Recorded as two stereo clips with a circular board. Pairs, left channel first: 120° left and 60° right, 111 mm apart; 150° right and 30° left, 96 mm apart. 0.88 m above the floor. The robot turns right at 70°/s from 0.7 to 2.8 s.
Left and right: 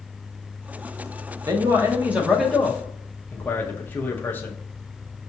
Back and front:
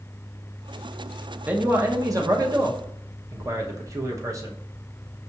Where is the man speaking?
35° right, 0.7 m; by 4.5 s 55° left, 0.7 m.